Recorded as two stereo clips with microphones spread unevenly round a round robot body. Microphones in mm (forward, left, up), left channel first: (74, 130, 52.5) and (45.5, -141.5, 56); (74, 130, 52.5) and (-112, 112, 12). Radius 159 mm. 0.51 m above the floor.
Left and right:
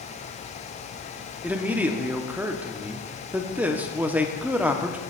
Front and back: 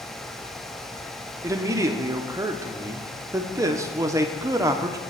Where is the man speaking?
175° right, 0.7 m.